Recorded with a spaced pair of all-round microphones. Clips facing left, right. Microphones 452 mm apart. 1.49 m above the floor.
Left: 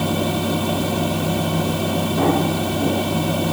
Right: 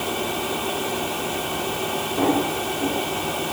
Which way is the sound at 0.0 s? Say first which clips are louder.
Left 6 dB; 55° left (ahead or behind).